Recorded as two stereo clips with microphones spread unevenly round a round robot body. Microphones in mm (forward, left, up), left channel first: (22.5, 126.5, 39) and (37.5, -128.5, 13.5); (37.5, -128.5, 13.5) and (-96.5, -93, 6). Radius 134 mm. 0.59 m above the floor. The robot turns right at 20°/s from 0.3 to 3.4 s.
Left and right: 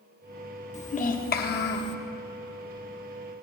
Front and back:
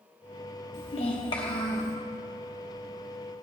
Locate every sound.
0.7 s a child speaking: 30° left, 1.2 m; by 1.9 s 55° left, 1.2 m